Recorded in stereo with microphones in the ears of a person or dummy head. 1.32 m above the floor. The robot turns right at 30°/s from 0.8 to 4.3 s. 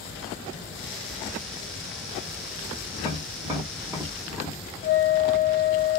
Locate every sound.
3.0 s tapping: 20° right (ahead or behind), 1.0 m; by 4.6 s 5° right (ahead or behind), 1.0 m
4.8 s a flute: 55° left (ahead or behind), 2.5 m